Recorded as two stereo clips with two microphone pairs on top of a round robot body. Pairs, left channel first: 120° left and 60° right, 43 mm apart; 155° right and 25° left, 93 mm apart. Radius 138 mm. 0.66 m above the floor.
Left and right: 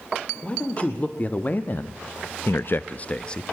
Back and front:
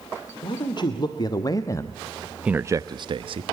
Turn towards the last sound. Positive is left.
turn(degrees=45)